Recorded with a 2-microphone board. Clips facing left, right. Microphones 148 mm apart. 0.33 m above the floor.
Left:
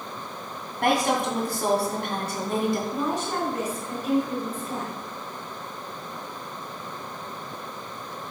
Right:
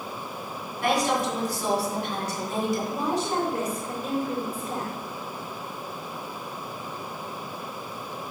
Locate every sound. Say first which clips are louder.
0.8 s a woman speaking: left 1 dB; 60° left (ahead or behind), 2.5 m
2.9 s a woman speaking: right 1 dB; 35° right (ahead or behind), 4 m